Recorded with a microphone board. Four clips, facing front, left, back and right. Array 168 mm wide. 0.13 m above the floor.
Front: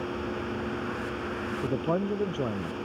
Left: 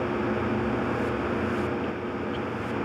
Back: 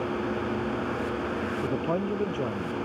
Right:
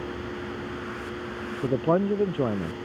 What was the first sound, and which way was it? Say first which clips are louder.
A man speaking: right 6 dB, front 2 dB; 90° right.